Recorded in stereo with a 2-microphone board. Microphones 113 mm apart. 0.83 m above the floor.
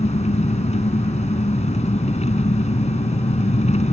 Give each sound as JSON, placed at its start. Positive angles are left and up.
{"t": 0.0, "sound": "an engine running", "side_deg": 85}